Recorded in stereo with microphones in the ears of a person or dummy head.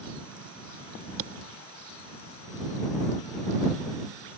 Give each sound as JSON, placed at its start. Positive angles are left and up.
{"t": 1.2, "sound": "a thud", "side_deg": -40}